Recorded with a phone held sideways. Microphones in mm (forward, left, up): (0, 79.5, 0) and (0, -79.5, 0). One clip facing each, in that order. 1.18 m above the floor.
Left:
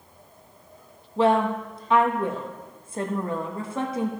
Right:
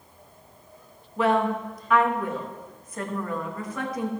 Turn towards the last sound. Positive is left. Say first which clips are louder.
# left 2 dB
turn(degrees=25)  # may be behind; listen again after turning